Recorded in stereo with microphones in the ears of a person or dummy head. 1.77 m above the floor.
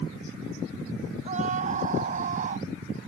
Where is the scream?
40° right (ahead or behind).